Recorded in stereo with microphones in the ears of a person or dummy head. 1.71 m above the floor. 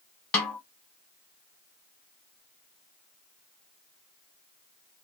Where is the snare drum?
10° left (ahead or behind), 1.0 m.